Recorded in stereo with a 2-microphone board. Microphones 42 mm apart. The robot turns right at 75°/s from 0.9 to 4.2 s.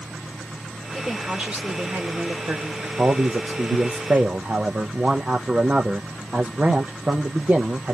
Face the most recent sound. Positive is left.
turn(degrees=-30)